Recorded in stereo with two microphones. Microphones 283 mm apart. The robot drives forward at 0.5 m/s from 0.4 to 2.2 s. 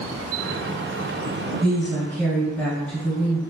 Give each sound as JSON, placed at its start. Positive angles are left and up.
{"t": 1.6, "sound": "a woman speaking", "side_deg": 5, "distance_m": 1.3}